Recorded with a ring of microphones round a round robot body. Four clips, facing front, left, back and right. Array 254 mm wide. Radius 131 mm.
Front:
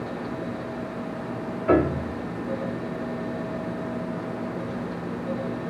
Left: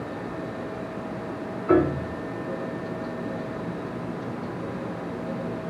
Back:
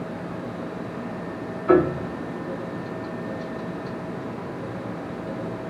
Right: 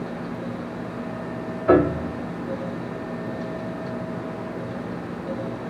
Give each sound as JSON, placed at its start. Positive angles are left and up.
{"t": 1.7, "sound": "a piano", "azimuth_deg": -75, "distance_m": 2.5}